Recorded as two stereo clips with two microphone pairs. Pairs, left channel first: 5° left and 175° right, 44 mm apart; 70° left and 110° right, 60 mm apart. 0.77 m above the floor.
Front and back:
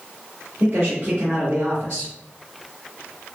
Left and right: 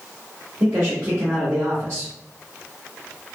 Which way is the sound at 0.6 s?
140° right.